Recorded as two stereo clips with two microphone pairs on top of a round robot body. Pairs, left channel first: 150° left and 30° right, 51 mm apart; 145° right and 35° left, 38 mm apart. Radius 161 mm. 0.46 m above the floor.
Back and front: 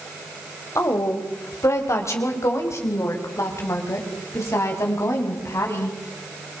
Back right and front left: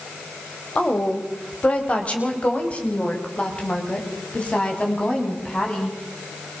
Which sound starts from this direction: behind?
A woman speaking, at 0.8 s.